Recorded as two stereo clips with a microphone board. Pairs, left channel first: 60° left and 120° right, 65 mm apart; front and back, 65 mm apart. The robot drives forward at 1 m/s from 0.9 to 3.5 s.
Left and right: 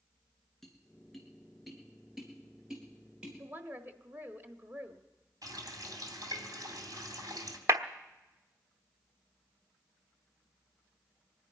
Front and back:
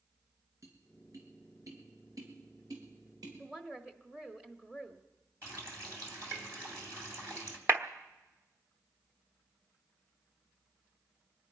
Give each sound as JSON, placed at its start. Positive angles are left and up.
{"t": 0.6, "sound": "tapping", "azimuth_deg": 145, "distance_m": 2.5}
{"t": 3.4, "sound": "a woman speaking", "azimuth_deg": -110, "distance_m": 1.1}
{"t": 5.4, "sound": "a running tap", "azimuth_deg": -135, "distance_m": 2.5}
{"t": 7.7, "sound": "a clap", "azimuth_deg": -140, "distance_m": 1.1}